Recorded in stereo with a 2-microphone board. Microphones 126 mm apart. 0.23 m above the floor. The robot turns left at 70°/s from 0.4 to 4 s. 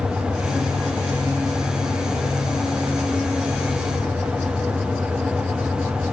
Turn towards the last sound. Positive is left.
No sound to turn to.